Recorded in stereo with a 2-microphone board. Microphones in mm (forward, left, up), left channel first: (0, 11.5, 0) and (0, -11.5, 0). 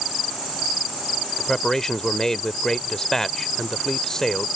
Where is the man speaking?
25° left (ahead or behind).